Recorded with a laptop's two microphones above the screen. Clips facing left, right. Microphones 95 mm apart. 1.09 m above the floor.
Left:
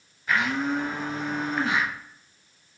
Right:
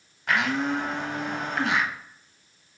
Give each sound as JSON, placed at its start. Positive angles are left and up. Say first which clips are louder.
{"t": 0.3, "sound": "a blender", "louder": "even", "side_deg": -70, "distance_m": 0.6}